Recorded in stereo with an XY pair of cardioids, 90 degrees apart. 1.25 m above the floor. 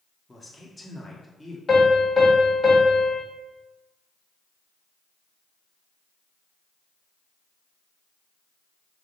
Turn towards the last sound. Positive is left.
turn(degrees=30)